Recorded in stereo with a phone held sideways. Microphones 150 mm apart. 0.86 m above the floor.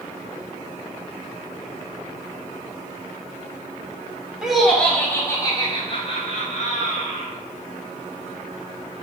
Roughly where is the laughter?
Centre.